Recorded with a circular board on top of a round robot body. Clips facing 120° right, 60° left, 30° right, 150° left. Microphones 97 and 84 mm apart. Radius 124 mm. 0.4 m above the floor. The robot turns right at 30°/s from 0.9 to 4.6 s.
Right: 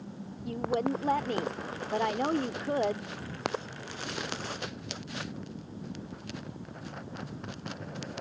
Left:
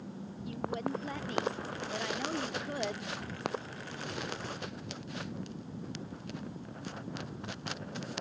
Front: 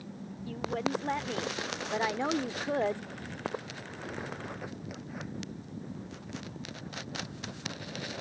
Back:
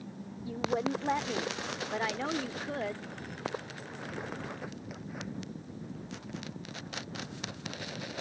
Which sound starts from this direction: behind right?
A woman speaking, at 0.5 s.